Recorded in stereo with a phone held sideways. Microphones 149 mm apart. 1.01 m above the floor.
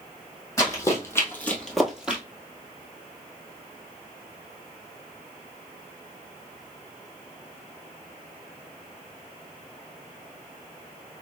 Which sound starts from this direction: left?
Running footsteps, at 0.6 s.